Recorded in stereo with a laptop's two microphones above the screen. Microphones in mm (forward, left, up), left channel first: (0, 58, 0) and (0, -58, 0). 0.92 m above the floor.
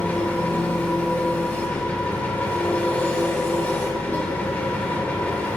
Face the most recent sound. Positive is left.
turn(degrees=15)  # may be behind; listen again after turning